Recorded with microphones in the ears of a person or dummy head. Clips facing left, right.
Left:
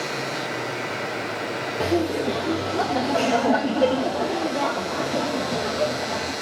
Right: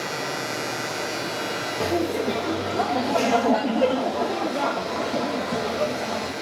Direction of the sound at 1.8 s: 5° left (ahead or behind).